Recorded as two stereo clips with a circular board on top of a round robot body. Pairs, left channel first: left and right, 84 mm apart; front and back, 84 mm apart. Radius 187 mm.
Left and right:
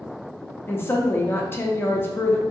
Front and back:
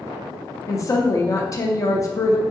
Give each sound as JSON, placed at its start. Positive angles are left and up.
{"t": 0.7, "sound": "a woman speaking", "azimuth_deg": 35, "distance_m": 0.7}